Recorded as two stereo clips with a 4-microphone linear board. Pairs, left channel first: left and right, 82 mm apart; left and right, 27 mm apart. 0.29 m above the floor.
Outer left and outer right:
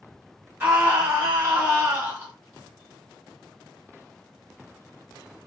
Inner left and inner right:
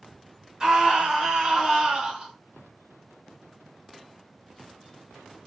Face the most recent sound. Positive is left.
turn(degrees=-30)  # may be behind; listen again after turning